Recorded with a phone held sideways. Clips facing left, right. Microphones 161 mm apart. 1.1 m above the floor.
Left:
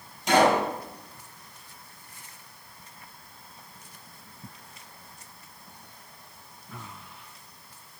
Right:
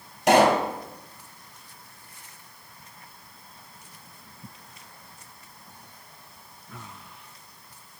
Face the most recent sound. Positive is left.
turn(degrees=-85)